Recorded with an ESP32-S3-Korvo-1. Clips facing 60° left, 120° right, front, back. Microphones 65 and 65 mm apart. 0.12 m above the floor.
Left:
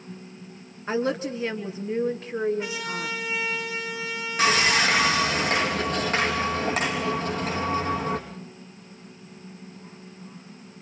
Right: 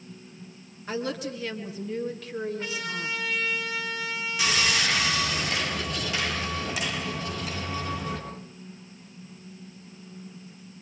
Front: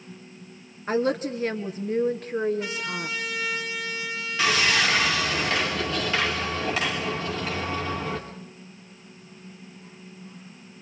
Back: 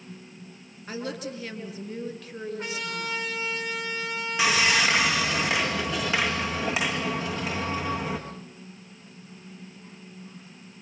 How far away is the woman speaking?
About 1.9 m.